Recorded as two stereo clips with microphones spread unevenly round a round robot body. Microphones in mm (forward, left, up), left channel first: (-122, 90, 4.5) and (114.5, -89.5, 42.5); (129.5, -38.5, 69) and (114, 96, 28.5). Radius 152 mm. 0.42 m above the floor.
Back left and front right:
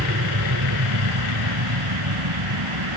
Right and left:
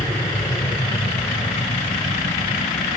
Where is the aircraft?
30° right; by 3.0 s 40° right.